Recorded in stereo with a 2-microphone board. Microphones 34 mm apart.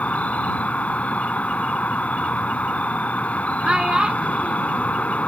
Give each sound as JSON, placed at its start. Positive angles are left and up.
{"t": 0.0, "sound": "an insect", "side_deg": 45}
{"t": 3.6, "sound": "a child speaking", "side_deg": -25}